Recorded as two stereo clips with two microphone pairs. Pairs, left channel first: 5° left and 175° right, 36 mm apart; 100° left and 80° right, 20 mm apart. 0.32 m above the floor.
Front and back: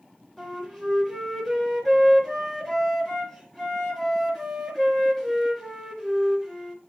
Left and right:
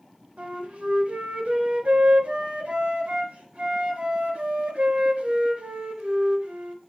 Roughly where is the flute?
Right.